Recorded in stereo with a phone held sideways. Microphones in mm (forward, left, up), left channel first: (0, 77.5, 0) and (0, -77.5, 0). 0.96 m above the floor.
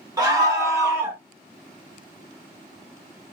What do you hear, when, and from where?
0.2 s a scream: 25° right (ahead or behind), 1.3 m; by 1.2 s 10° right (ahead or behind), 0.8 m